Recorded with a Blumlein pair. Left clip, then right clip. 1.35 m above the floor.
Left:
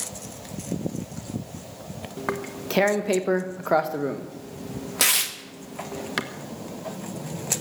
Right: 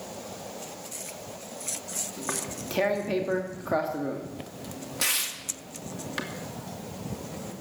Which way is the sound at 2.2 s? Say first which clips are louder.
Left 9 dB; 45° left.